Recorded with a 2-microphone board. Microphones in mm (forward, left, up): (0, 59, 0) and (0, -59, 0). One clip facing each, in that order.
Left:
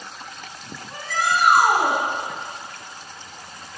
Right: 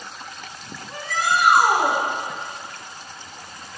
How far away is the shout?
About 1.9 m.